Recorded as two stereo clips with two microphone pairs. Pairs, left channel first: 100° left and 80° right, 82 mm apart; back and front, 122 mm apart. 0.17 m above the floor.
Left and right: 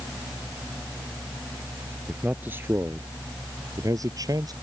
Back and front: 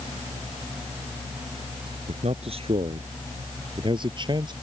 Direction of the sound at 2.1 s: 10° right.